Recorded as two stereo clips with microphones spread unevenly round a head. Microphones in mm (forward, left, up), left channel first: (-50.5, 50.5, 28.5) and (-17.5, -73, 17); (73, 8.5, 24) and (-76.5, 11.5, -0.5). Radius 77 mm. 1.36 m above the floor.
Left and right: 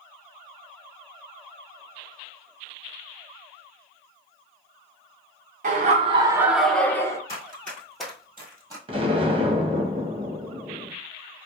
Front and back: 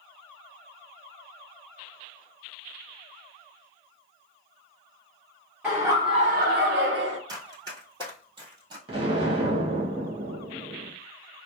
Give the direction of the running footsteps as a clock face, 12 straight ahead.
8 o'clock.